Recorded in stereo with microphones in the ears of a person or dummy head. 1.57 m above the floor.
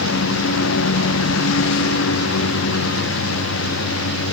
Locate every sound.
0.0 s a lawn mower: 80° left